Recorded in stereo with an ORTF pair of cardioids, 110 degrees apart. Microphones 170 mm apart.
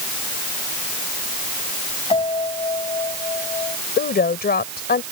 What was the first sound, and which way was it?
A piano, 30° left.